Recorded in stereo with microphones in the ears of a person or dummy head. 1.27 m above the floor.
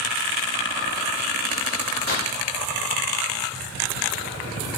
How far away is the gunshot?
About 1.8 m.